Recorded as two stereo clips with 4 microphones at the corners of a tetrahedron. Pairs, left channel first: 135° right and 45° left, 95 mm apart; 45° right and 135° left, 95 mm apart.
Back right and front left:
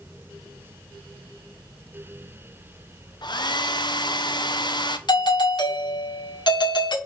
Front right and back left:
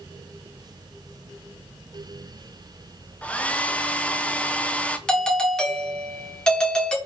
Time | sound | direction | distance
3.2 | a hair dryer | 120° right | 0.6 m
5.1 | a doorbell | 125° right | 1.5 m